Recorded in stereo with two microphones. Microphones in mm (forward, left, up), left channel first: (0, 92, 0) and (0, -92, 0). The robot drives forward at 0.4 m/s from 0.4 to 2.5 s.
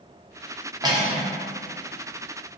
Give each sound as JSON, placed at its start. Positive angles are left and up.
{"t": 0.8, "sound": "cutlery clinking", "side_deg": -20, "distance_m": 0.5}